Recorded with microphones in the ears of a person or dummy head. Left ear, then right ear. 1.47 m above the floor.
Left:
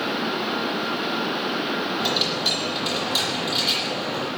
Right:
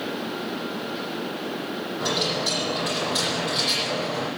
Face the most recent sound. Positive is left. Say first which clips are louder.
# even
turn(degrees=60)  # may be behind; listen again after turning